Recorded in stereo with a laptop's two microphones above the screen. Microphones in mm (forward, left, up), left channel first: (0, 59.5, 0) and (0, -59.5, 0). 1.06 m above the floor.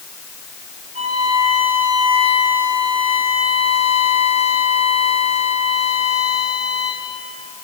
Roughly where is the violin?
Right.